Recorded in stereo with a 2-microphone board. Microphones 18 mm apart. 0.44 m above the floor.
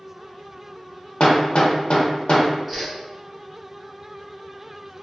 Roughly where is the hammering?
Left.